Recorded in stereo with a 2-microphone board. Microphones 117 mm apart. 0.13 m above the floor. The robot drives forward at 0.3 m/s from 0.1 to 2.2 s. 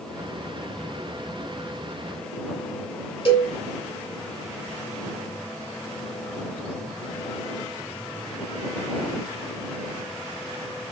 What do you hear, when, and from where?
3.2 s a cowbell: 45° left (ahead or behind), 3.5 m